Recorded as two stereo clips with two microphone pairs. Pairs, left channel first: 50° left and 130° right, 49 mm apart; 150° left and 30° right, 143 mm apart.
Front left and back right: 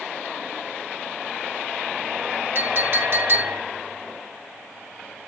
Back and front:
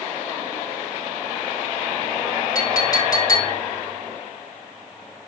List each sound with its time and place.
2.5 s a clink: 150° right, 1.5 m